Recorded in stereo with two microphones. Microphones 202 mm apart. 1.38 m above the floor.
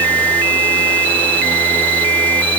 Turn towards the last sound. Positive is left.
No sound to turn to.